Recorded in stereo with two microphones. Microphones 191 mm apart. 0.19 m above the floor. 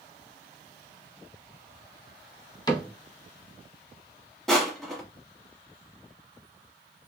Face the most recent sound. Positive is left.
turn(degrees=0)  # may be behind; listen again after turning